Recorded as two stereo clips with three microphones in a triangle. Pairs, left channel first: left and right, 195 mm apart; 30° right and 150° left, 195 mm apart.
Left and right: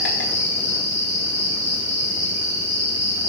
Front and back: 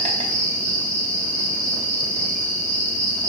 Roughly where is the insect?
Left.